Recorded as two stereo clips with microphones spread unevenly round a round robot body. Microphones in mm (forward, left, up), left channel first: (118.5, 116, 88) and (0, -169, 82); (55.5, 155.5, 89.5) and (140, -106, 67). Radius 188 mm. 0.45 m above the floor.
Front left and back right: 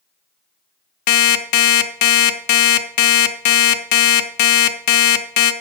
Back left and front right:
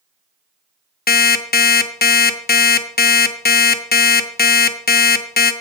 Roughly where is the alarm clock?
Ahead left.